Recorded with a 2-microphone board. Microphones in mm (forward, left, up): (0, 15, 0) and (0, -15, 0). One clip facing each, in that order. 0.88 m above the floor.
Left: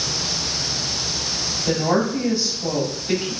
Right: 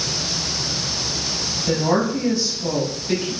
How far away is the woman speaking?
About 4.5 m.